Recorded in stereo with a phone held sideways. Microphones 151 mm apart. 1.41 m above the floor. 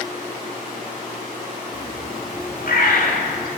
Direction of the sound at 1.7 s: 75° left (ahead or behind).